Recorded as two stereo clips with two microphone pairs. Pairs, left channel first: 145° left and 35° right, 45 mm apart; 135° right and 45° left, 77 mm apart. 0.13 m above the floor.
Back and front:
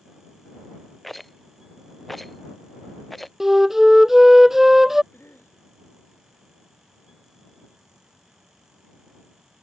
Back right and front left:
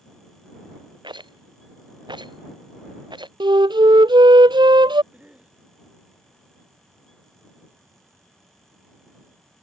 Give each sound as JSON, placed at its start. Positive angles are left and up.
{"t": 1.0, "sound": "a rattle", "azimuth_deg": 60}
{"t": 3.4, "sound": "a flute", "azimuth_deg": 50}
{"t": 5.1, "sound": "a cough", "azimuth_deg": 120}